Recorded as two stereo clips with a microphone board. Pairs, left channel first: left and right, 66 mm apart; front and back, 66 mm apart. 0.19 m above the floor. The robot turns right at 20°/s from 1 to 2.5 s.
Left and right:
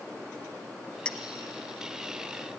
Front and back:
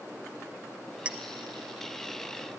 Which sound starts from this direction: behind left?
A clink, at 1.1 s.